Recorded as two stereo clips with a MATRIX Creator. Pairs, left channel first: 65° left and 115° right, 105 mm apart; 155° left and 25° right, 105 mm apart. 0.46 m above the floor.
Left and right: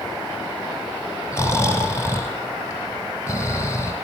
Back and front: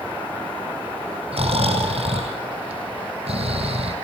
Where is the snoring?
5° left, 6 m.